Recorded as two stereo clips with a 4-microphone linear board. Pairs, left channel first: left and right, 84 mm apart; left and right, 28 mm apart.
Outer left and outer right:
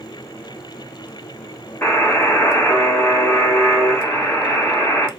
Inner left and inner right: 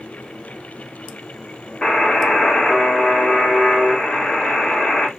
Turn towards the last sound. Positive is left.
turn(degrees=20)  # may be behind; listen again after turning